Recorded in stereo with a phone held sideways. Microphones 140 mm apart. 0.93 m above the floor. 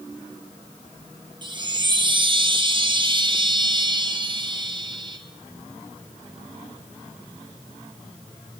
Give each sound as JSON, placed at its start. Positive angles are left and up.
{"t": 1.4, "sound": "a chime", "side_deg": -35, "distance_m": 0.8}